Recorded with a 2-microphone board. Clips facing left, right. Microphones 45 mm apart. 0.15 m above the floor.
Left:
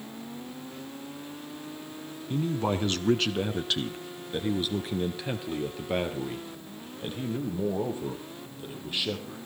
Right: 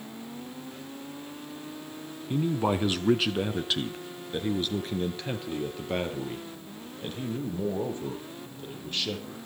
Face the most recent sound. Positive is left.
turn(degrees=10)  # may be behind; listen again after turning